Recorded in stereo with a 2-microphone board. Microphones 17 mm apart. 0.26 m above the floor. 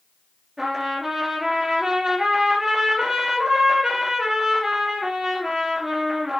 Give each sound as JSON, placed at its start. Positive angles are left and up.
{"t": 0.6, "sound": "a trumpet", "side_deg": -20, "distance_m": 3.0}